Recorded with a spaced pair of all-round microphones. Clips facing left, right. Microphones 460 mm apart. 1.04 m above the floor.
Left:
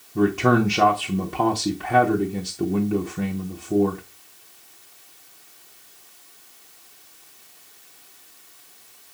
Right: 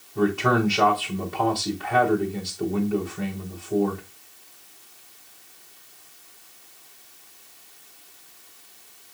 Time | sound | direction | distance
0.1 | a man speaking | 50° left (ahead or behind) | 1.0 m